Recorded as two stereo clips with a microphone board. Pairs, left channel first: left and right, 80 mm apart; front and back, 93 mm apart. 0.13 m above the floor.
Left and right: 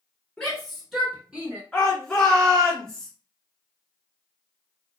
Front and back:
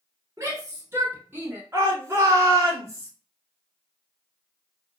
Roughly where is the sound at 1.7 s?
Behind.